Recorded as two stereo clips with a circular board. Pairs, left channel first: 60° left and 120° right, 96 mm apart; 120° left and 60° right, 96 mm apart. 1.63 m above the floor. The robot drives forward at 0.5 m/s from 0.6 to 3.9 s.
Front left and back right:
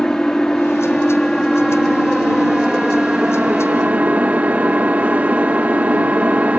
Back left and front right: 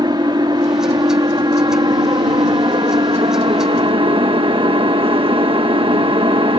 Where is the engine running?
25° right; by 6.6 s 45° right.